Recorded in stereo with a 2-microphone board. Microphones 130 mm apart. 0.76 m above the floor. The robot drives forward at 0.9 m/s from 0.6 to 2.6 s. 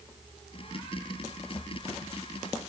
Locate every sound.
Only background noise.